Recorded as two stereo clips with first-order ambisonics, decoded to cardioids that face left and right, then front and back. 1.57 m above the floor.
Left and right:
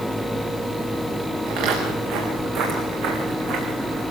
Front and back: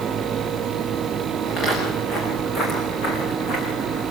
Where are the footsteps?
65° right, 7 m; by 4.0 s 50° right, 7.5 m.